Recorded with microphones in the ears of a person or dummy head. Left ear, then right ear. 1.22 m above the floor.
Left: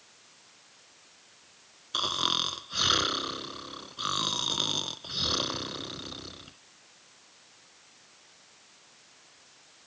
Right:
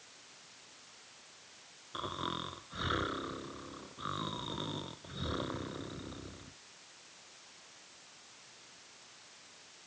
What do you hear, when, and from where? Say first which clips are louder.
1.9 s snoring: left 12 dB; 80° left